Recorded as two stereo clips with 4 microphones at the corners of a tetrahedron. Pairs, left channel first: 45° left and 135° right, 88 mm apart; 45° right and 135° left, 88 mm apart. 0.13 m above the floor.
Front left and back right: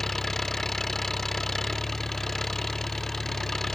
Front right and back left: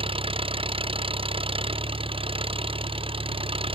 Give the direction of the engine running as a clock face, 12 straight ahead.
8 o'clock.